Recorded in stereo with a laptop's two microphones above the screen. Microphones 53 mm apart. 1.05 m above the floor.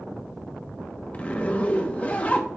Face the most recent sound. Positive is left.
turn(degrees=25)  # may be behind; listen again after turning